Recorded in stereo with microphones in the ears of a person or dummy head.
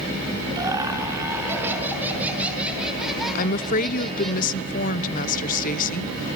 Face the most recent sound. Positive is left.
turn(degrees=45)  # may be behind; listen again after turning